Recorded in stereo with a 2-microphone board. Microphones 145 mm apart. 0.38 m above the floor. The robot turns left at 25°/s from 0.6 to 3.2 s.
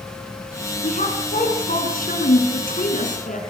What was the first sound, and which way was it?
A woman speaking, 125° left.